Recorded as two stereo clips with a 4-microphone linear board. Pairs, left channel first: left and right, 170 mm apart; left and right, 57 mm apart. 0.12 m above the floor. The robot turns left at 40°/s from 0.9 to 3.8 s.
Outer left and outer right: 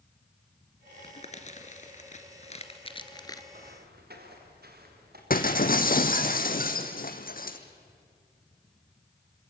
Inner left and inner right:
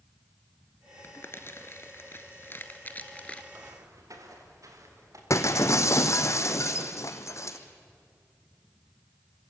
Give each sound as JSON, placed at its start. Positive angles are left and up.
{"t": 1.0, "sound": "crumpling", "side_deg": 35, "distance_m": 1.6}
{"t": 3.5, "sound": "footsteps", "side_deg": -60, "distance_m": 5.0}
{"t": 5.3, "sound": "breaking glass", "side_deg": 55, "distance_m": 1.7}